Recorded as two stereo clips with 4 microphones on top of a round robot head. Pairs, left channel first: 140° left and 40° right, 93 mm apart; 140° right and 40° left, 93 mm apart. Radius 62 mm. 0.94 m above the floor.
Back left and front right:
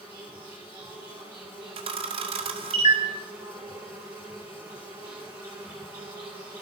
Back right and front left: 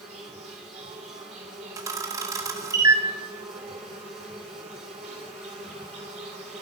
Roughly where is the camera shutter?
Ahead.